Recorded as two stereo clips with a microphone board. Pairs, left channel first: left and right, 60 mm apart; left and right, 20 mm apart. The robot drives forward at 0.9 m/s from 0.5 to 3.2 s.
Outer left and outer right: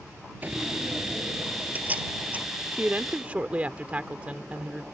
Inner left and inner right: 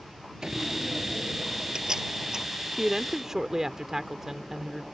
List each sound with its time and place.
0.4 s a door slam: 30° right (ahead or behind); by 2.5 s 25° right (ahead or behind)
2.7 s a woman speaking: 25° right (ahead or behind)